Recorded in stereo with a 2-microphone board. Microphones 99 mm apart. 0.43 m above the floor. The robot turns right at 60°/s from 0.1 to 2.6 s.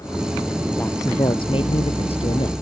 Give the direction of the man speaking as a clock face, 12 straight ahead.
11 o'clock.